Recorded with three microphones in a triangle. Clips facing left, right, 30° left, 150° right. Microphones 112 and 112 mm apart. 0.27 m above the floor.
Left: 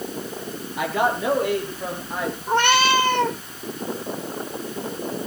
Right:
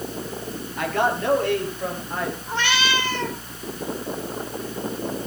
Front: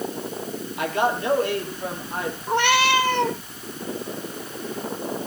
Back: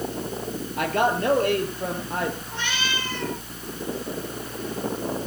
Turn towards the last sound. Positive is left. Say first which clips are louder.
# left 9 dB, front 11 dB
turn(degrees=55)